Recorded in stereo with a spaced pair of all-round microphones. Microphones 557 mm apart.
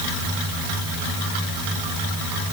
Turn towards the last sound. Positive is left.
No sound to turn to.